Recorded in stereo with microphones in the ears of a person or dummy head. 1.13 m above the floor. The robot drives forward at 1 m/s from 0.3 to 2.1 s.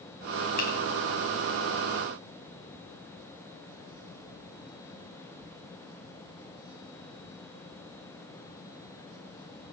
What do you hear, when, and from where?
0.6 s a finger snap: 50° left (ahead or behind), 2.5 m; by 0.7 s 45° left (ahead or behind), 2.5 m